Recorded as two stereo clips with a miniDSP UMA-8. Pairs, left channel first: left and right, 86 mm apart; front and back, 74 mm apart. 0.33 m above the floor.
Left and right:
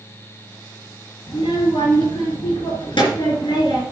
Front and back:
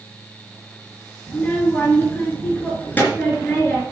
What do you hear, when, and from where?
1.3 s a child speaking: 65° left, 3 m